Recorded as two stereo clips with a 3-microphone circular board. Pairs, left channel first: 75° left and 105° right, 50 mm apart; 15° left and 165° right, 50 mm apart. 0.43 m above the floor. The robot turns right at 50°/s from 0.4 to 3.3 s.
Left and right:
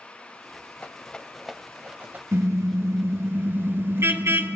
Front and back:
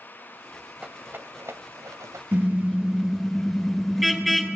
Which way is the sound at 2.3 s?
120° right.